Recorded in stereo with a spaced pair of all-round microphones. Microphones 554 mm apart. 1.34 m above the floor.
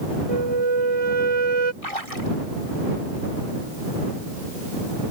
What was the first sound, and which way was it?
A flute, 80° right.